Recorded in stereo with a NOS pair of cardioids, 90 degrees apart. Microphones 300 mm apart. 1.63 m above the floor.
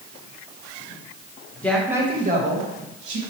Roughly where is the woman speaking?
Ahead.